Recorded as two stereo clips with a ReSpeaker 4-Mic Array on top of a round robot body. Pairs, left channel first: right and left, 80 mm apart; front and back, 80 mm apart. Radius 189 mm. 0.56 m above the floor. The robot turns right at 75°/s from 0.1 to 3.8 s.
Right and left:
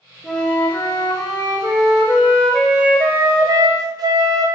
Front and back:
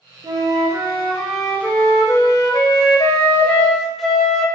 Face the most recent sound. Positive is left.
turn(degrees=90)